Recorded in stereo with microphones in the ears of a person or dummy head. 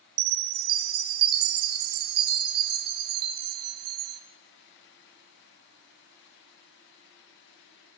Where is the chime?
85° right, 0.9 m.